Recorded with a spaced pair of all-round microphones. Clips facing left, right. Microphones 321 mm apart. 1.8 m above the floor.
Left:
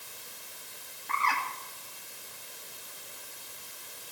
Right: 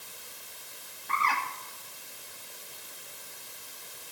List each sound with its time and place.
1.1 s a bird: centre (ahead or behind), 3 m